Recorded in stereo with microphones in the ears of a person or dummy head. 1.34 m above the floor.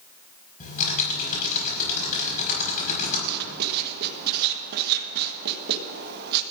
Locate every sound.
0.6 s typing on a keyboard: 45° left (ahead or behind), 5 m
3.3 s writing: 55° right (ahead or behind), 1.3 m